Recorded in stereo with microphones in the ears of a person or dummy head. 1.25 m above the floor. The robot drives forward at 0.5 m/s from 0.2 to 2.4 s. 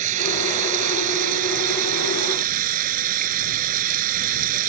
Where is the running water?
45° right (ahead or behind); by 4.7 s 50° right (ahead or behind).